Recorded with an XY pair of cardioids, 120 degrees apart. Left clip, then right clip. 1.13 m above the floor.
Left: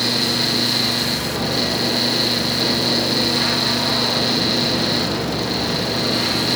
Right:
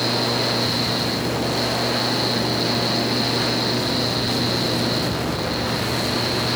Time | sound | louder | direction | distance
0.0 | a fan | left 2 dB | 35° left | 1.1 m